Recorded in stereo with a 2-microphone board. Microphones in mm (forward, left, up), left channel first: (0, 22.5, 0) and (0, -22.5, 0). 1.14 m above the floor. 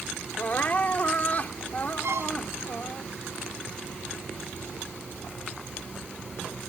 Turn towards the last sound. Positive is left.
turn(degrees=-70)  # may be behind; listen again after turning